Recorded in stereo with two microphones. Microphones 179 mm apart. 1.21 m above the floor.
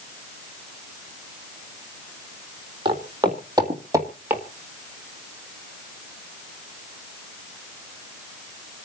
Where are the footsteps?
25° right (ahead or behind), 3 m; by 4.4 s 10° right (ahead or behind), 2 m.